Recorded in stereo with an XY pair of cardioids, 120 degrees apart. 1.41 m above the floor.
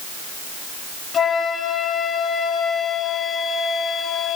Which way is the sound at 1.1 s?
45° left.